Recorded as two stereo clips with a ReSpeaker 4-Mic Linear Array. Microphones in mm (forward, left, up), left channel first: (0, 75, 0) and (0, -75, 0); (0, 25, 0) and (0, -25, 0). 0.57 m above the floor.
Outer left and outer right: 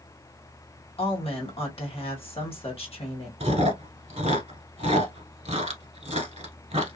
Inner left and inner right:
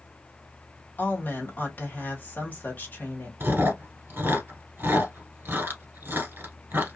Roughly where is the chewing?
Right.